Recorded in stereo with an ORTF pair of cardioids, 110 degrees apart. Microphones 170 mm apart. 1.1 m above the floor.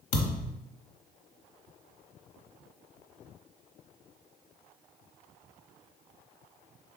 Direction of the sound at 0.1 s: 50° left.